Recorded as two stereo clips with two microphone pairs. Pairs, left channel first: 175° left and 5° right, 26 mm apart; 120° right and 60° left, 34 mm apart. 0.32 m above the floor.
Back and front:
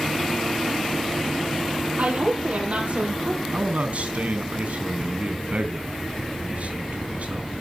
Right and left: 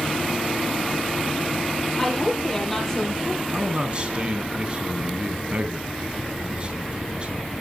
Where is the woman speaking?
35° right, 8.5 m; by 3.4 s 40° right, 9 m.